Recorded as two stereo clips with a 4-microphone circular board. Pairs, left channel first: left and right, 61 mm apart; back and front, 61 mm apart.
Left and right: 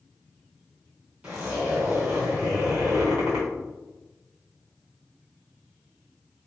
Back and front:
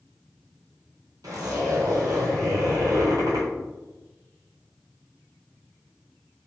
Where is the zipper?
25° right, 1.5 m.